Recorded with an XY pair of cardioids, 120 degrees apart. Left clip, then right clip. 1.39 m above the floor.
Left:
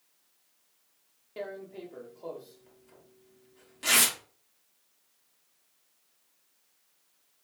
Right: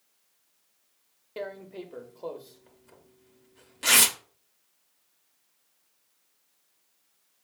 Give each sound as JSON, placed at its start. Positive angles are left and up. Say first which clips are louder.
{"t": 1.4, "sound": "tearing paper", "louder": "right 2 dB", "azimuth_deg": -30, "distance_m": 0.6}